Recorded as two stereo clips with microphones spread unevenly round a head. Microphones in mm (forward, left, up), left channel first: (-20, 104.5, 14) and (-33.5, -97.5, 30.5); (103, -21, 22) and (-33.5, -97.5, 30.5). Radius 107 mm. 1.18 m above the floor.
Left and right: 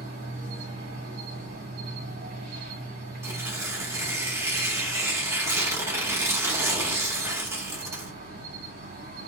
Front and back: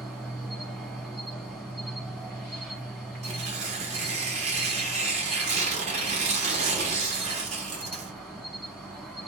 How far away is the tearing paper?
About 0.8 m.